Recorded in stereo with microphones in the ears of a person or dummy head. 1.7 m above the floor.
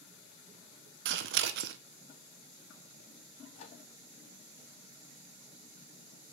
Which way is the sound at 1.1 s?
70° right (ahead or behind).